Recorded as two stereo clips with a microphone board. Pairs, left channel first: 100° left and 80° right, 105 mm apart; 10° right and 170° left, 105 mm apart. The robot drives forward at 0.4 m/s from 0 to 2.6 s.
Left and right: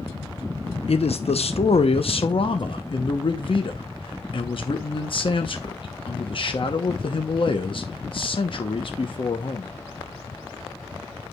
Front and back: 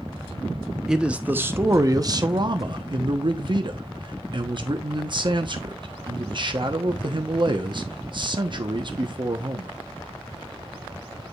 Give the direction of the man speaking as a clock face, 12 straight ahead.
9 o'clock.